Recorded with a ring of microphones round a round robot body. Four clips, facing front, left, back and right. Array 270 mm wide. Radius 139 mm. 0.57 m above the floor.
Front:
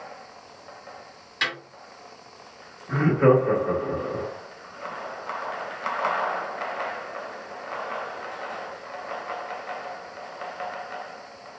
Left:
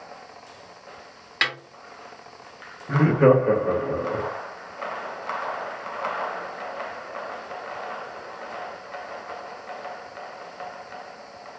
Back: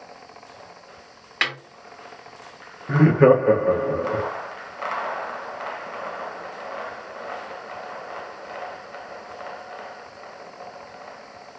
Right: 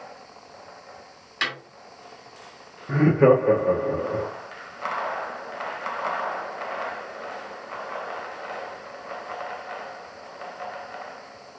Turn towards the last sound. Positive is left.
turn(degrees=180)